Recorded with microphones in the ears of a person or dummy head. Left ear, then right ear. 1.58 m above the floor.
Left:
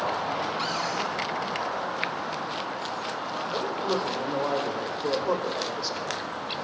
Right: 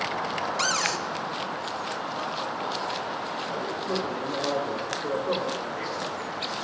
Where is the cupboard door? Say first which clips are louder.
Right 3 dB; 65° right (ahead or behind), 1.4 m.